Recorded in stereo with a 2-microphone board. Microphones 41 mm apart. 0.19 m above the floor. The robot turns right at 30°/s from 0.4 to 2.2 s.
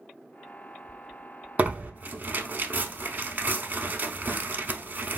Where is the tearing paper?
35° right (ahead or behind), 0.5 m; by 5.2 s 45° right (ahead or behind), 0.5 m.